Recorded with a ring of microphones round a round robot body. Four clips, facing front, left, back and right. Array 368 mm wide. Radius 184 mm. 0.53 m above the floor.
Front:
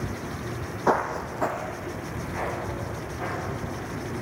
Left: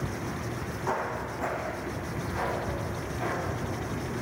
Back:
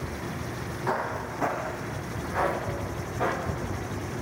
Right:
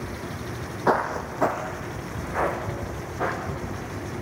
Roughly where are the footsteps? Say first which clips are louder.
Right 8 dB, front 6 dB; ahead right.